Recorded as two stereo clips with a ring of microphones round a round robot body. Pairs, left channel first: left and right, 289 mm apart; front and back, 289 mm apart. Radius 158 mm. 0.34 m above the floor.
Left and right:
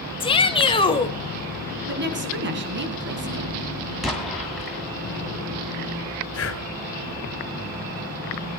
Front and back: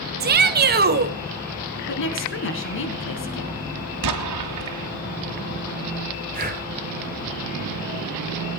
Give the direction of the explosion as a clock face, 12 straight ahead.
6 o'clock.